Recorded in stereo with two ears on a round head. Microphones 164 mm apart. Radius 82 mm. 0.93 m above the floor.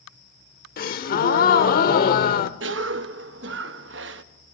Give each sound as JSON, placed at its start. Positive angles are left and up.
{"t": 0.8, "sound": "a gasp", "side_deg": 50, "distance_m": 0.8}
{"t": 2.6, "sound": "a cough", "side_deg": -70, "distance_m": 0.9}